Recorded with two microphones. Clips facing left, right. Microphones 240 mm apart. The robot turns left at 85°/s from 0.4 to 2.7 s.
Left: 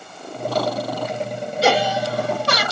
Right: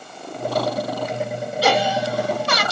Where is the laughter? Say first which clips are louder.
Left 1 dB; 155° left, 3 m; by 2.6 s 70° left, 3 m.